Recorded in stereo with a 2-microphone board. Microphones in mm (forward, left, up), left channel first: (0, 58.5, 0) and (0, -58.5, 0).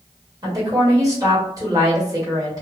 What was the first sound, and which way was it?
A woman speaking, 30° right (ahead or behind).